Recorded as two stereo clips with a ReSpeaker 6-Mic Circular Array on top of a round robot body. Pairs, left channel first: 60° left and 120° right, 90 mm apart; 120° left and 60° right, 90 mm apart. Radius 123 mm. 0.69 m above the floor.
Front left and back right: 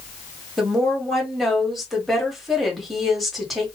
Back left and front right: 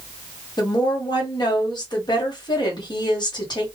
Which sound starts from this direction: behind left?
A woman speaking, at 0.6 s.